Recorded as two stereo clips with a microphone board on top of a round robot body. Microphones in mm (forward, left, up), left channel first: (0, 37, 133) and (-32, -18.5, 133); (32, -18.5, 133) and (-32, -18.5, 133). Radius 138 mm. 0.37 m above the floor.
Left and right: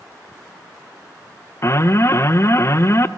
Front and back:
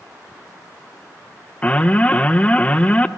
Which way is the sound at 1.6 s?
60° left.